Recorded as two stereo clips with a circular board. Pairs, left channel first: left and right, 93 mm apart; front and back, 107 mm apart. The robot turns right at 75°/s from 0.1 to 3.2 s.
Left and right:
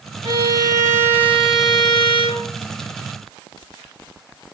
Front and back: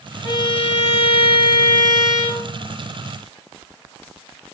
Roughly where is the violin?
Ahead right.